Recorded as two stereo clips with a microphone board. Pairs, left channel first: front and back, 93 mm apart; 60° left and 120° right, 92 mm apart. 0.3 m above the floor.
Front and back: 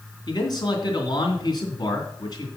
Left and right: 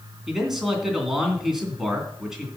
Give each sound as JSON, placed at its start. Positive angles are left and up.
{"t": 0.3, "sound": "a man speaking", "azimuth_deg": -35, "distance_m": 2.5}